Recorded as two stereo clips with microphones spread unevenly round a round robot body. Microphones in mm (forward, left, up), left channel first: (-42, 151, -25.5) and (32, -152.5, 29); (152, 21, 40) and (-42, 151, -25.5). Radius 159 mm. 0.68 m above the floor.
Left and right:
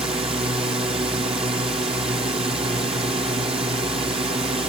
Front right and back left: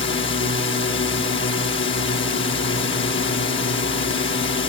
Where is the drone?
Straight ahead.